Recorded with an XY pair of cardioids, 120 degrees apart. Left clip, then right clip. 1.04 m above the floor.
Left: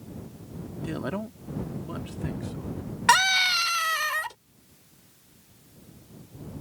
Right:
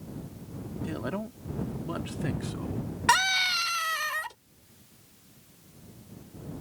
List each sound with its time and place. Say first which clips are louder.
0.8 s a man speaking: left 2 dB; 20° left; by 2.8 s 45° right
3.1 s a scream: left 3 dB; 20° left